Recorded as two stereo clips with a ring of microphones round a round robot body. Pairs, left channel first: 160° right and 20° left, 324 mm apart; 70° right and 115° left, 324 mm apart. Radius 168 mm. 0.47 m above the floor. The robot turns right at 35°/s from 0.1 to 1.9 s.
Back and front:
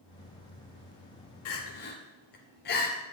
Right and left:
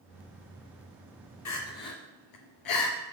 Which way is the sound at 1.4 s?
110° right.